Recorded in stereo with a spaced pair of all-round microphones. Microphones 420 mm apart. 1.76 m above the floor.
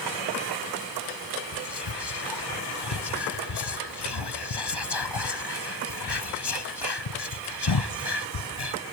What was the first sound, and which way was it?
Whispering, 65° left (ahead or behind).